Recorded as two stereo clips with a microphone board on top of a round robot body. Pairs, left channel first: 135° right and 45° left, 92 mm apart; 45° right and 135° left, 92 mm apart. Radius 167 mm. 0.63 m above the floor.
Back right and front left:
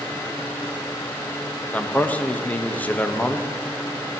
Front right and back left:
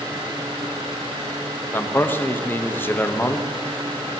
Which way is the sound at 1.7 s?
80° right.